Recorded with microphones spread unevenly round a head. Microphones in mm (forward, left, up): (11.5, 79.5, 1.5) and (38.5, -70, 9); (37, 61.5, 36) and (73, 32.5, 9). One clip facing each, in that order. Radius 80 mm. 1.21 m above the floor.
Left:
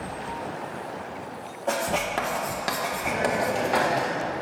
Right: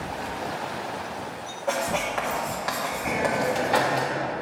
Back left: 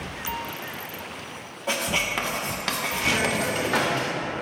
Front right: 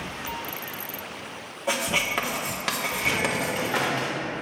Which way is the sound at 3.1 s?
170° right.